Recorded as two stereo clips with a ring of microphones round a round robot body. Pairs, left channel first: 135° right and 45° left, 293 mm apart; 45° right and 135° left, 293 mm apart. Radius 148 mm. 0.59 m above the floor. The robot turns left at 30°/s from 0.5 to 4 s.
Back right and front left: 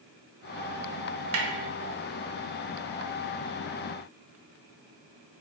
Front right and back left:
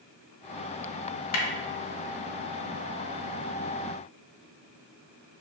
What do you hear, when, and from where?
1.3 s a snare drum: 5° right, 0.6 m; by 1.5 s 10° right, 0.6 m